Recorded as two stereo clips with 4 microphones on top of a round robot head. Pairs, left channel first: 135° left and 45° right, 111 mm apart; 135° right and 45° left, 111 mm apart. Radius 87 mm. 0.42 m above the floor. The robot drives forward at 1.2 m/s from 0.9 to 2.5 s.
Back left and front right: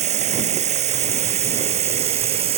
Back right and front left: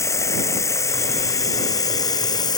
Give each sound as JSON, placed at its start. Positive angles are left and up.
{"t": 0.0, "sound": "running water", "azimuth_deg": -70}